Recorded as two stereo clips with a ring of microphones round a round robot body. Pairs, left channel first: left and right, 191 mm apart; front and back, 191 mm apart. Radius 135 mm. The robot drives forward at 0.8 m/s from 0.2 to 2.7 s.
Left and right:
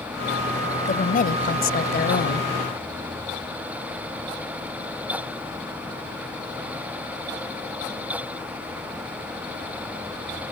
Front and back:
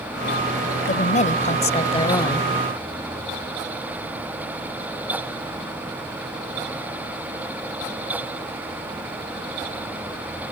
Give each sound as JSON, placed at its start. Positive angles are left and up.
{"t": 0.9, "sound": "a woman speaking", "azimuth_deg": 45}